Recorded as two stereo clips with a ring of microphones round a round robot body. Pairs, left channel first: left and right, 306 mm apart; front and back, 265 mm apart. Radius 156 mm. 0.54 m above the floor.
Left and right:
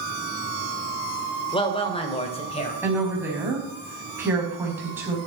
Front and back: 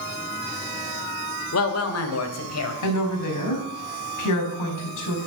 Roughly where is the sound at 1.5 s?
Ahead.